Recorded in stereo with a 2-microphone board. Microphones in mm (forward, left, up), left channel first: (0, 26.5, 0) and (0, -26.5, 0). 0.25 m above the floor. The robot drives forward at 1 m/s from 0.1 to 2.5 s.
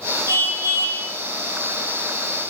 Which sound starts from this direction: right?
A car horn, at 0.3 s.